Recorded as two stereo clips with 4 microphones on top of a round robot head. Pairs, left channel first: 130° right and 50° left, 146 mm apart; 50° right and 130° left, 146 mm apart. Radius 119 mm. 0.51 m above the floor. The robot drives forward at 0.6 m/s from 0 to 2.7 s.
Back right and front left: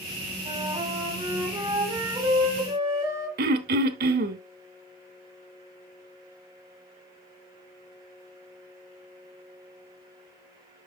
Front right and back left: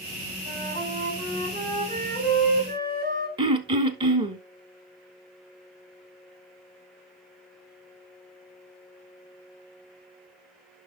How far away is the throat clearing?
About 0.7 m.